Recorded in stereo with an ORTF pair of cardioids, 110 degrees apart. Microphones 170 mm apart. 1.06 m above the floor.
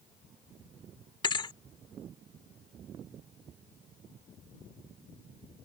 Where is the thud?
30° left.